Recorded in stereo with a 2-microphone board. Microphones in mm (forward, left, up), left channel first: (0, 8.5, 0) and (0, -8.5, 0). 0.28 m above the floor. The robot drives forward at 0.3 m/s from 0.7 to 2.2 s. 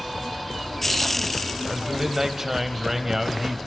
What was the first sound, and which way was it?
A man speaking, 20° right (ahead or behind).